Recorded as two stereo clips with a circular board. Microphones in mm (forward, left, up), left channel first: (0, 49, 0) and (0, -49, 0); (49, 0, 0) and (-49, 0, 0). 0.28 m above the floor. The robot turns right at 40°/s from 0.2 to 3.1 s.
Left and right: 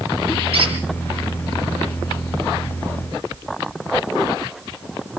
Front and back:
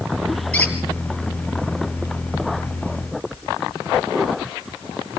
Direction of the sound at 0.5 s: 75° right.